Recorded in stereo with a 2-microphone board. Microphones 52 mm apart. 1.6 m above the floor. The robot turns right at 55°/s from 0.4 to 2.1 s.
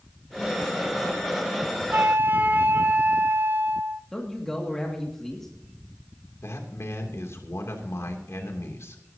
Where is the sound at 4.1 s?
10° left (ahead or behind), 2 m.